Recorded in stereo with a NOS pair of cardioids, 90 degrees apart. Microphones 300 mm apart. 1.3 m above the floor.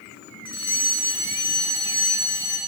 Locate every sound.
0.5 s a fire alarm: 15° left, 8 m